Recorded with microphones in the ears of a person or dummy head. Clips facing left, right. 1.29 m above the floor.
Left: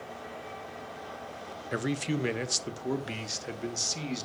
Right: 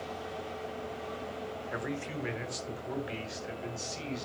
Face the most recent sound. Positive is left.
turn(degrees=60)  # may be behind; listen again after turning